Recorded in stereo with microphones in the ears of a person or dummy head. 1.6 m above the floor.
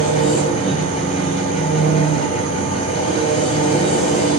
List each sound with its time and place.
0.0 s an engine running: 45° left (ahead or behind), 5 m